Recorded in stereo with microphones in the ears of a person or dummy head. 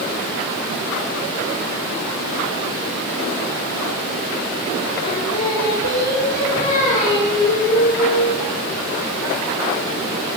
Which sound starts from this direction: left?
Singing, at 5.0 s.